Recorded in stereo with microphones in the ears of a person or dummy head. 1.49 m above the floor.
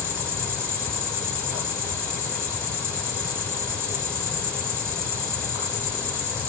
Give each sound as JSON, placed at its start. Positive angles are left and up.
{"t": 0.0, "sound": "an insect", "side_deg": -15, "distance_m": 3.5}